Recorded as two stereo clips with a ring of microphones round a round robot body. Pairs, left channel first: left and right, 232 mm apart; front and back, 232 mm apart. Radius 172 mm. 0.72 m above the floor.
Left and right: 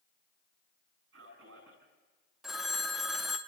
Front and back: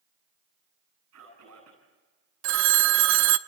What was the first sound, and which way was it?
A man speaking, 140° right.